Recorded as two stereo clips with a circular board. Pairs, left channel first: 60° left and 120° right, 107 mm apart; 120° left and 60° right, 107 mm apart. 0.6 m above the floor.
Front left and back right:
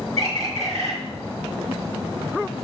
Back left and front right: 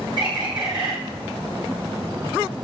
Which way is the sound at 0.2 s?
100° right.